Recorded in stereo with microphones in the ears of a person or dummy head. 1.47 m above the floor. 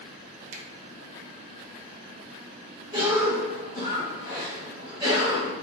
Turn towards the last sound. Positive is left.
turn(degrees=-25)  # may be behind; listen again after turning